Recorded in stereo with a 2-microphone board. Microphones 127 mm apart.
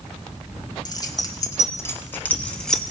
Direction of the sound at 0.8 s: 35° left (ahead or behind).